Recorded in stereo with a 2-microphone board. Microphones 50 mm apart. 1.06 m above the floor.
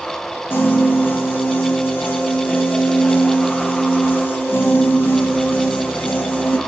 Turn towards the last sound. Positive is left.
turn(degrees=45)  # may be behind; listen again after turning